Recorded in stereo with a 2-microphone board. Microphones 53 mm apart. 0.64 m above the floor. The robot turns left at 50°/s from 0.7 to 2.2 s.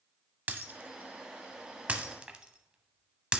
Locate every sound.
0.5 s breaking glass: 35° right (ahead or behind), 0.5 m; by 3.4 s 20° right (ahead or behind), 0.5 m